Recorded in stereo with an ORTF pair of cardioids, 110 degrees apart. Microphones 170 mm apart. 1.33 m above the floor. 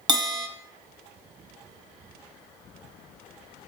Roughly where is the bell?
Ahead right.